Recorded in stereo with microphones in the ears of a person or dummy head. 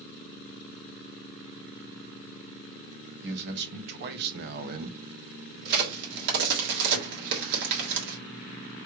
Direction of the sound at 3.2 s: 70° right (ahead or behind).